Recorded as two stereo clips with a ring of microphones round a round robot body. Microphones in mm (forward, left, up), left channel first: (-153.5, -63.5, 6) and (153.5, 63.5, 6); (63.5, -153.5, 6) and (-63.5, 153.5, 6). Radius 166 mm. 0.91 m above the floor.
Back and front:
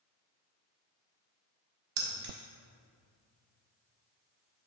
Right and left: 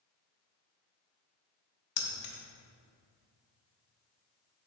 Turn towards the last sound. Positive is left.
turn(degrees=-35)